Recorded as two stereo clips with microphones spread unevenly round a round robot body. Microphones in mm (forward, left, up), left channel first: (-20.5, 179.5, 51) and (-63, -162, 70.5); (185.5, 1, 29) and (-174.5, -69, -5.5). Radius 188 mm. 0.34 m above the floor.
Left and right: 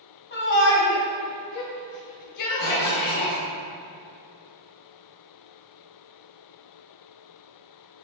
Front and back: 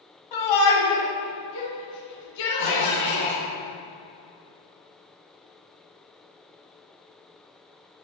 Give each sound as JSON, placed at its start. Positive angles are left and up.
{"t": 0.3, "sound": "a shout", "azimuth_deg": 25, "distance_m": 2.5}
{"t": 2.6, "sound": "a cough", "azimuth_deg": 35, "distance_m": 2.5}